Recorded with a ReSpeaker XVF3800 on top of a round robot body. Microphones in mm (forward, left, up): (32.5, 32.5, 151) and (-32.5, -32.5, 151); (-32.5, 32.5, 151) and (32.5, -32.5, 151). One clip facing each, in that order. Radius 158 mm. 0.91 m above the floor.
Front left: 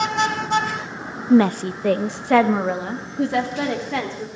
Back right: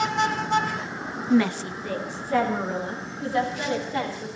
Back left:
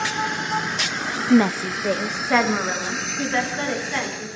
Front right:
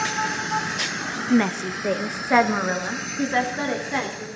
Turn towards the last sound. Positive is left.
turn(degrees=35)